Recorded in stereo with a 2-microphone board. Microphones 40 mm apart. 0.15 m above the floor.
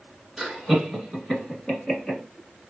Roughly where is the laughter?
Centre.